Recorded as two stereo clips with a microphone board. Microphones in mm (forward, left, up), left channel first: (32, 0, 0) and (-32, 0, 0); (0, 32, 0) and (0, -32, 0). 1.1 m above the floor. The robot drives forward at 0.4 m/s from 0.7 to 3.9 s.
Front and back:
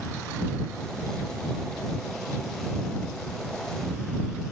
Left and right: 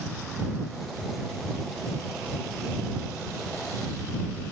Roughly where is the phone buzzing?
I don't hear a phone buzzing.